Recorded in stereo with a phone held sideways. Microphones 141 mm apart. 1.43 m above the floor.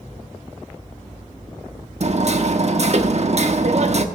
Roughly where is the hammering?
Right.